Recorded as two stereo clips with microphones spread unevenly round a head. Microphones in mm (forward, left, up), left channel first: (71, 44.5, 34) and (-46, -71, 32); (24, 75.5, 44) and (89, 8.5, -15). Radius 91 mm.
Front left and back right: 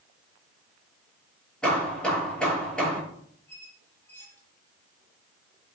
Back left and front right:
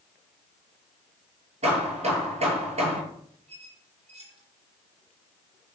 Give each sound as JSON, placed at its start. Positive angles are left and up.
{"t": 1.6, "sound": "hammering", "azimuth_deg": -40, "distance_m": 9.0}
{"t": 3.5, "sound": "a squeak", "azimuth_deg": -35, "distance_m": 6.0}